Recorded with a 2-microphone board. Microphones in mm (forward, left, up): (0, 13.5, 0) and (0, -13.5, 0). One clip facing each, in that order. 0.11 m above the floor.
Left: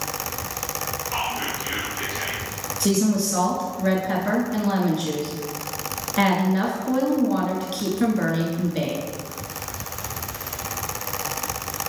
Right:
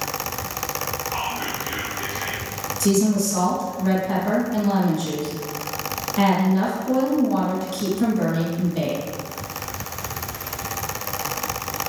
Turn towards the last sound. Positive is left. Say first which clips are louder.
# right 2 dB
turn(degrees=30)  # may be behind; listen again after turning